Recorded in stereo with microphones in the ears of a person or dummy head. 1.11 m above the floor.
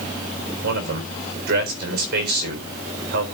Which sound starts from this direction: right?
A man speaking, at 0.6 s.